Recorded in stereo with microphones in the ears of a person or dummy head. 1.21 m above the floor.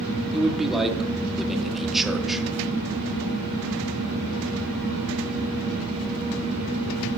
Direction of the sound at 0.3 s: Centre (ahead or behind).